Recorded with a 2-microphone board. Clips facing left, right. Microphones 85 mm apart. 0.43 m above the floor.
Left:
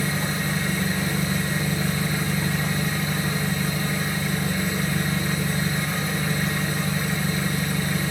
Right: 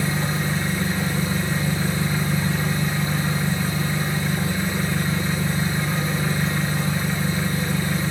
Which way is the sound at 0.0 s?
30° right (ahead or behind).